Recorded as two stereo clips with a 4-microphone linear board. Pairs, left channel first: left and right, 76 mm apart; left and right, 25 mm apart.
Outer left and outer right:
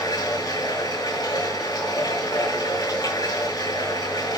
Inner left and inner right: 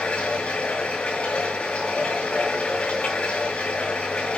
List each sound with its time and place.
0.0 s running water: 60° left (ahead or behind), 6.5 m